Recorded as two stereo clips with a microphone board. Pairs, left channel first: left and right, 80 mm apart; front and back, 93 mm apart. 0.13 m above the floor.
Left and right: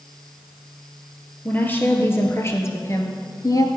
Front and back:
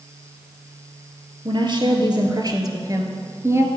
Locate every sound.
1.4 s a woman speaking: 155° left, 2.5 m; by 3.7 s 120° left, 1.8 m